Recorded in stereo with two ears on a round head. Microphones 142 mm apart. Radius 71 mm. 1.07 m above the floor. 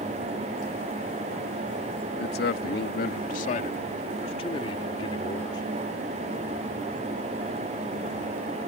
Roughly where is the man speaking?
Left.